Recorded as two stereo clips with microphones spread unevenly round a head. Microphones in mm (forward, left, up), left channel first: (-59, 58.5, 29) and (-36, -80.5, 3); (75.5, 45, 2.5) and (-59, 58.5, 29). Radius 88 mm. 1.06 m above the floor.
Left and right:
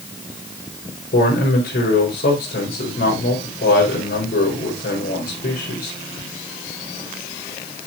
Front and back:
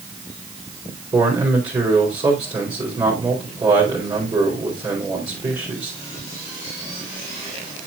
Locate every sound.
1.1 s a man speaking: 110° left, 4.5 m